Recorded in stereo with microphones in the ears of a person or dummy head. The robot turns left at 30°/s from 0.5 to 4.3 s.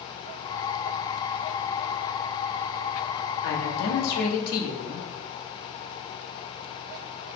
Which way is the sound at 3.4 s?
85° left.